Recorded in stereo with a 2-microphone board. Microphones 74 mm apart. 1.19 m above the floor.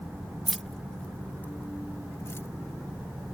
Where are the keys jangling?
Centre (ahead or behind); by 2.5 s 40° left (ahead or behind).